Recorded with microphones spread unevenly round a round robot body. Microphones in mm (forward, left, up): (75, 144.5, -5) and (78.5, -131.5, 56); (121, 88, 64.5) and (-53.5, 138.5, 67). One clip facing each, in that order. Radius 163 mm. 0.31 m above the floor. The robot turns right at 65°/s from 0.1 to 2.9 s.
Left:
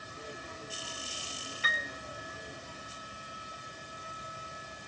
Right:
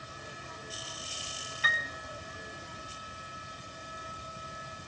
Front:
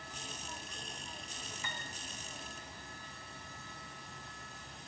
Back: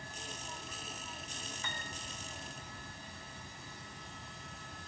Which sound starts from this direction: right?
A piano, at 1.6 s.